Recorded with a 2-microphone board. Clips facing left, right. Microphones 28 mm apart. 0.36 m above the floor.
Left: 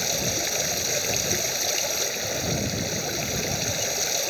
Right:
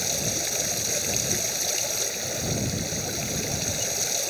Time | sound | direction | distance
0.0 | running water | 10° left (ahead or behind) | ?